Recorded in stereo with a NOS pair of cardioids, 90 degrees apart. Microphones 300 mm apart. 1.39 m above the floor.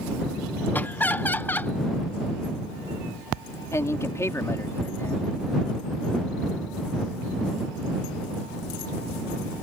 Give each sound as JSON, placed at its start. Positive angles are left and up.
{"t": 0.7, "sound": "laughter", "azimuth_deg": 5}
{"t": 3.7, "sound": "a man speaking", "azimuth_deg": 10}